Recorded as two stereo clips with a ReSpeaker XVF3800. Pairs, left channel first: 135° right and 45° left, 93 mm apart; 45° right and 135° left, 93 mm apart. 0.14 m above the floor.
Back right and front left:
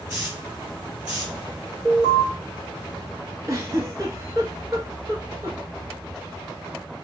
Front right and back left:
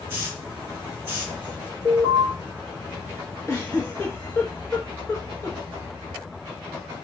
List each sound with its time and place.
0.1 s a hiss: 95° left, 1.3 m
1.9 s an alarm: 15° right, 1.2 m
3.5 s a giggle: 5° left, 0.7 m